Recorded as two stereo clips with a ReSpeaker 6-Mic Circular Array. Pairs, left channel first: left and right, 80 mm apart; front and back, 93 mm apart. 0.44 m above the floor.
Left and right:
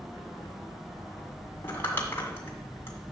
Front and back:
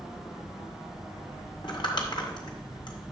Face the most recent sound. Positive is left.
turn(degrees=30)